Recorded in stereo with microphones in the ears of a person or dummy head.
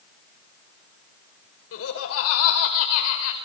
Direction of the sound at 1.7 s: 80° left.